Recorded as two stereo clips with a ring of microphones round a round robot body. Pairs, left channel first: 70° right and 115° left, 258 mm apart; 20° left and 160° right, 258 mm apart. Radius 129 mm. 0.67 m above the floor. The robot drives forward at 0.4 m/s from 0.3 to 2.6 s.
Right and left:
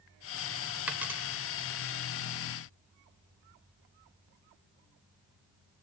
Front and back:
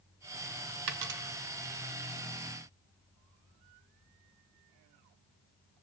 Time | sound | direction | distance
0.9 | a dropped coin | 160° right | 1.0 m